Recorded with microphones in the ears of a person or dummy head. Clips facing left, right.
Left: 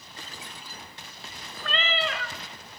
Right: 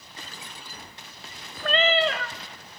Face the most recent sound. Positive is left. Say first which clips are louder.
# right 8 dB
turn(degrees=-25)  # may be behind; listen again after turning